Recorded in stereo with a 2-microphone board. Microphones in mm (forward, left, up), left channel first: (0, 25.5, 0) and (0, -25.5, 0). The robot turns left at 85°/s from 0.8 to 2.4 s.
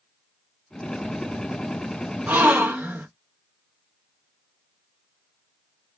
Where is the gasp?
25° right (ahead or behind), 1.0 m; by 3.1 s 35° right (ahead or behind), 1.0 m.